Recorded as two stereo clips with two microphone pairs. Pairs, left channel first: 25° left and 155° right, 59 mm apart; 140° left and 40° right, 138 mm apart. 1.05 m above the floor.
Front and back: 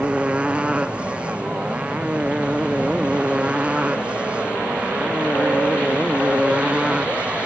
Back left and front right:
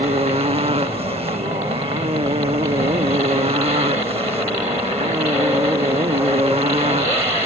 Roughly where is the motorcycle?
Right.